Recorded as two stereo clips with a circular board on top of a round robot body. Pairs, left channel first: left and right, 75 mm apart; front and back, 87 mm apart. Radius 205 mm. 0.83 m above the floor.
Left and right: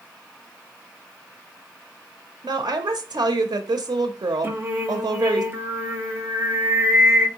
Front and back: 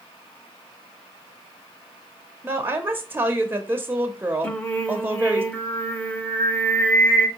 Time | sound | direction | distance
2.4 | a woman speaking | 110° right | 0.6 m
4.4 | singing | 65° right | 1.1 m